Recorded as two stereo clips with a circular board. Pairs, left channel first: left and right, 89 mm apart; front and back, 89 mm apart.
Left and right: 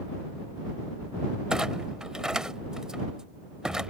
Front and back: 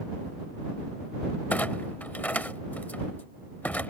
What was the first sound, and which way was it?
A clunk, 25° right.